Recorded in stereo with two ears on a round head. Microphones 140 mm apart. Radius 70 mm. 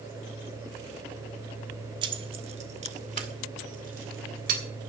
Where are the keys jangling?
30° right (ahead or behind), 1.2 m; by 4.6 s 55° right (ahead or behind), 3 m.